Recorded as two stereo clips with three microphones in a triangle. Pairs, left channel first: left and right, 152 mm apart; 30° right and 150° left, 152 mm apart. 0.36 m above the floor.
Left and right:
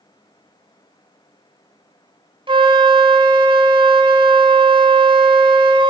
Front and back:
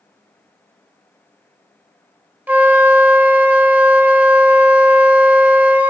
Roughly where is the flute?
Behind right.